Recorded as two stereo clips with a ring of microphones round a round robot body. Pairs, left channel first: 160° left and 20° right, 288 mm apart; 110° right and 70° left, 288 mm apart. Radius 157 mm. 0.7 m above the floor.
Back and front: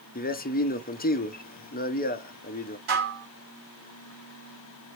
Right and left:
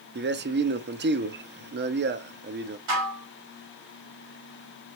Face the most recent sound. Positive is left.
turn(degrees=35)